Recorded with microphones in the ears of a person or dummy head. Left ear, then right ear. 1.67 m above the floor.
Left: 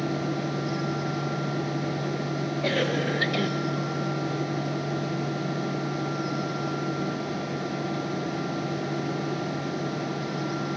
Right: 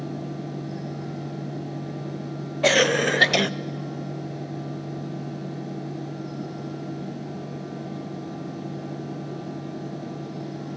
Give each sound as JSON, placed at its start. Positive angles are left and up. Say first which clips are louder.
{"t": 0.0, "sound": "a fan", "louder": "left 5 dB", "side_deg": 55, "distance_m": 1.3}
{"t": 2.6, "sound": "a cough", "louder": "right 8 dB", "side_deg": -40, "distance_m": 0.6}